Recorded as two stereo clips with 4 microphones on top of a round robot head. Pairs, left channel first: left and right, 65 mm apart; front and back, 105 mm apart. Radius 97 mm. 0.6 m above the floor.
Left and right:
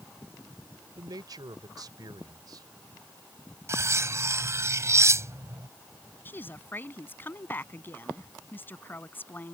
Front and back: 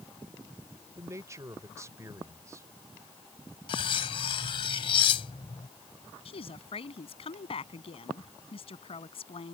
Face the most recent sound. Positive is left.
turn(degrees=30)